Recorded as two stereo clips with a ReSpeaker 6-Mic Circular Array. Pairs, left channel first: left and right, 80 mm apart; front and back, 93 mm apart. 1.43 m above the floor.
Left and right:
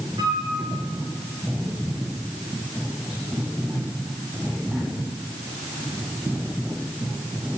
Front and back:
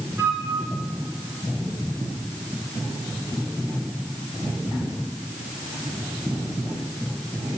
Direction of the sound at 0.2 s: 115° right.